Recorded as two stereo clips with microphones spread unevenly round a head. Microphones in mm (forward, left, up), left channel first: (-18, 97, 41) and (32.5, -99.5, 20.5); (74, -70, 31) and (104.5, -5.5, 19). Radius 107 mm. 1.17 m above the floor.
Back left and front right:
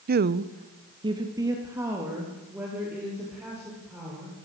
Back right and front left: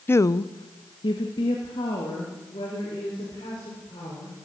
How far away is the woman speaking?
About 0.7 m.